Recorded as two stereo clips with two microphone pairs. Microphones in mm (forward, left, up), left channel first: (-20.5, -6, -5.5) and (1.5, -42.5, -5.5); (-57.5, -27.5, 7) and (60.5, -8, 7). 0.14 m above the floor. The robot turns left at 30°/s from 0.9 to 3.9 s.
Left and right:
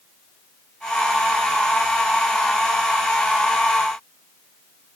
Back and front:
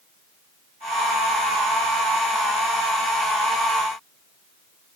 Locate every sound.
Only background noise.